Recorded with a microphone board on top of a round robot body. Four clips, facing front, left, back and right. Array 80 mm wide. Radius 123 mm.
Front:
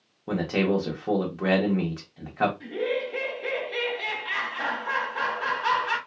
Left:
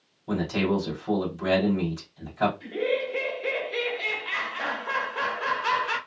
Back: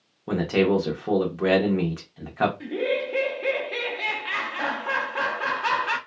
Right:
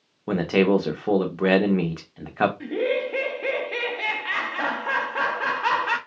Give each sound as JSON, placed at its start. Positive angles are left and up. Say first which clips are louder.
{"t": 0.3, "sound": "a man speaking", "louder": "right 6 dB, back 3 dB", "azimuth_deg": -95, "distance_m": 0.9}
{"t": 2.6, "sound": "laughter", "louder": "right 3 dB, back 2 dB", "azimuth_deg": -105, "distance_m": 1.0}